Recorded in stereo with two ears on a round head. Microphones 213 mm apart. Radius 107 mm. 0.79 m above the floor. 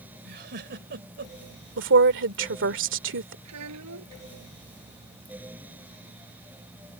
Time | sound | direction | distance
0.2 | a giggle | 45° right (ahead or behind) | ?
1.8 | a woman speaking | 50° right (ahead or behind) | ?
3.5 | a child speaking | 80° right | ?